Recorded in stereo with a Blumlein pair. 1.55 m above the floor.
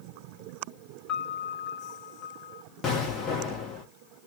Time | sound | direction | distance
1.1 | a piano | 30° left | 0.6 m
2.8 | an explosion | 20° left | 1.0 m